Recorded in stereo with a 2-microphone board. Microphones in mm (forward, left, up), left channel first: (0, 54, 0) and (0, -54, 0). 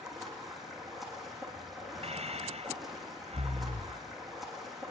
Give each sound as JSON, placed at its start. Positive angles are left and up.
{"t": 0.0, "sound": "running water", "side_deg": 0, "distance_m": 7.5}
{"t": 2.0, "sound": "breathing", "side_deg": -75, "distance_m": 1.6}